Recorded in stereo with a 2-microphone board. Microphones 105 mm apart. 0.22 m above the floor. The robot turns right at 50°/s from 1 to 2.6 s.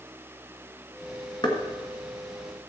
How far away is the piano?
I don't hear a piano.